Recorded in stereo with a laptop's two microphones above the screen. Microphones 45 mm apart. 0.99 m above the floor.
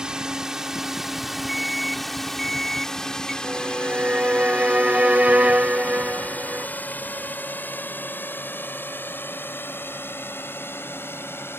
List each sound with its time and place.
0.0 s a drone: 15° right (ahead or behind); by 11.6 s 55° left (ahead or behind)
1.5 s an alarm: centre (ahead or behind)
3.4 s a violin: 30° right (ahead or behind)